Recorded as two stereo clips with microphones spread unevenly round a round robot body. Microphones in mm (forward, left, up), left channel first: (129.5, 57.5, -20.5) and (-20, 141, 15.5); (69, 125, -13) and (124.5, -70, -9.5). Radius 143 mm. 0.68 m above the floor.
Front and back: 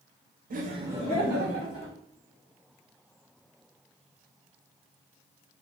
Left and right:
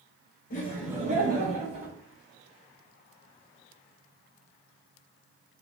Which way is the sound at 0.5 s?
130° left.